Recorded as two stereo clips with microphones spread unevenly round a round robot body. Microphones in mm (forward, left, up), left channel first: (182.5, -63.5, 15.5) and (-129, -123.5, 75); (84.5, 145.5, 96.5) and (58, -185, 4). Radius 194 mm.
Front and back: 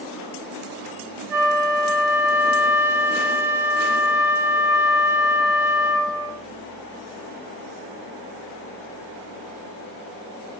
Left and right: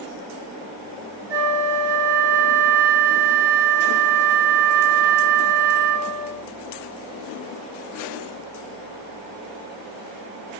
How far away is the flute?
About 2.5 m.